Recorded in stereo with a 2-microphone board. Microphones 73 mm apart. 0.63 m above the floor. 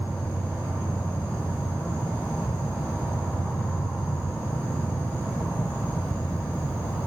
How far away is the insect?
About 2.5 m.